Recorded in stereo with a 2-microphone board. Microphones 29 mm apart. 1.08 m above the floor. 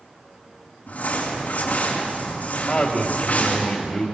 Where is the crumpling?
60° left (ahead or behind), 6 m.